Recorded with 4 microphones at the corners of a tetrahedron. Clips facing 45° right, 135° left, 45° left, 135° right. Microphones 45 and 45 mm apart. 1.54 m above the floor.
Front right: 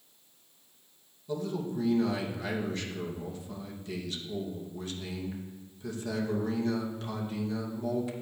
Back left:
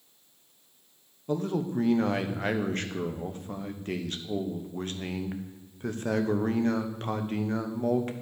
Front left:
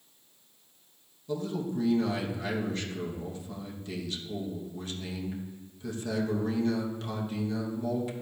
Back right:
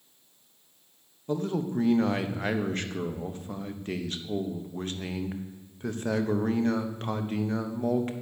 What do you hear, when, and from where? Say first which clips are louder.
1.3 s a man speaking: back left 4 dB, back right 3 dB; 175° left, 1.0 m